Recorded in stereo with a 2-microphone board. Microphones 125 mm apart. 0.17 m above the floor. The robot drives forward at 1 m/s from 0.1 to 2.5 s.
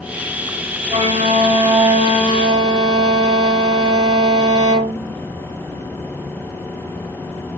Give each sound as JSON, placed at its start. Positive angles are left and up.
{"t": 0.9, "sound": "a violin", "side_deg": -60, "distance_m": 2.0}